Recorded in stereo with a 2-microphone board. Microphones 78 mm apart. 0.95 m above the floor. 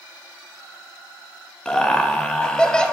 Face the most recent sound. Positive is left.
turn(degrees=10)  # may be behind; listen again after turning